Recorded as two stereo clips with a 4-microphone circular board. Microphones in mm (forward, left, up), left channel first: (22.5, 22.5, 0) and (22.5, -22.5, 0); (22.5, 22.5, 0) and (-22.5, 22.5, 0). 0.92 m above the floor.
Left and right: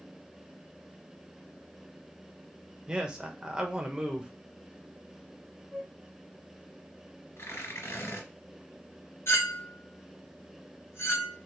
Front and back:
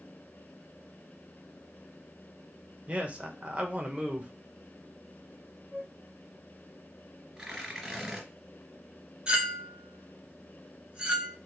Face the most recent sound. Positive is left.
turn(degrees=110)